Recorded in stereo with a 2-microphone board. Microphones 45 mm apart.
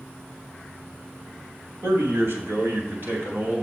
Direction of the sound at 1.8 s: 65° right (ahead or behind).